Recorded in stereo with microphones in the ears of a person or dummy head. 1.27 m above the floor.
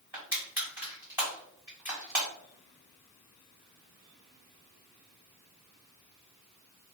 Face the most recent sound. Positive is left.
turn(degrees=-15)  # may be behind; listen again after turning